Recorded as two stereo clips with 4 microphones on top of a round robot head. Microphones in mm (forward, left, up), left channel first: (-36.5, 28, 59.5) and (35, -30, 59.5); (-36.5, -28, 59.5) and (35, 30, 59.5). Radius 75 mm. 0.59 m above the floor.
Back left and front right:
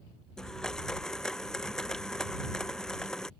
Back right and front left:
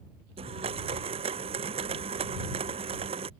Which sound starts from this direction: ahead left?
A blender, at 0.4 s.